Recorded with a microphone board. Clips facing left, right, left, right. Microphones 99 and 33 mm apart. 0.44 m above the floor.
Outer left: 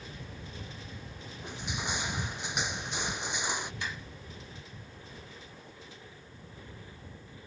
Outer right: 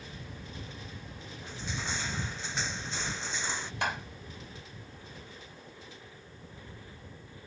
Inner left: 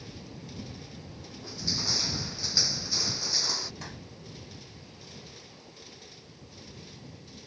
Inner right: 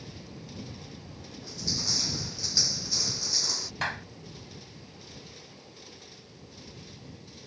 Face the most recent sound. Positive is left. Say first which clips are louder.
# outer right 7 dB, inner right 11 dB
turn(degrees=-65)  # may be behind; listen again after turning